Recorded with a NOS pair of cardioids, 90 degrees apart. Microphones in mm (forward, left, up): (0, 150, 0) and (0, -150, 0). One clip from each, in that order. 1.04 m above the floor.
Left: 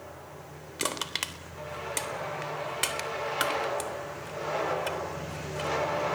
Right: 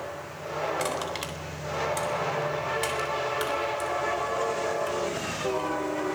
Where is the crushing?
40° left, 3.5 m.